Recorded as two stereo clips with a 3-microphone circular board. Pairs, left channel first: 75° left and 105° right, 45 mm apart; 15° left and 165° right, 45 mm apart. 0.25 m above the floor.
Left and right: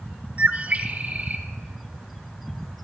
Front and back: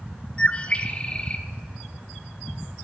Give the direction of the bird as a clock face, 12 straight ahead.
2 o'clock.